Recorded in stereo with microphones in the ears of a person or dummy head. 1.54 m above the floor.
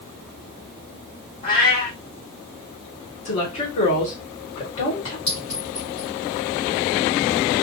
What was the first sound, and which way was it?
A cat meowing, 30° left (ahead or behind).